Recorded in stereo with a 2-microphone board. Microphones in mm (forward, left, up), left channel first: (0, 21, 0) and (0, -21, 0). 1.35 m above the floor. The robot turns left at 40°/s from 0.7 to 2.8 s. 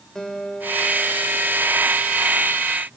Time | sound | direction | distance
0.1 | a guitar | 15° left | 2.5 m